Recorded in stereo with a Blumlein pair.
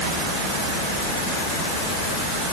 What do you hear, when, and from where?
Only background noise.